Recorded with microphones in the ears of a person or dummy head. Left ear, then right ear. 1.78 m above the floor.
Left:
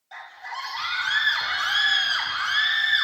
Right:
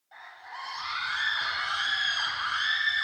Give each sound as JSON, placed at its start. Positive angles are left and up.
{"t": 0.1, "sound": "a scream", "side_deg": 70, "distance_m": 4.5}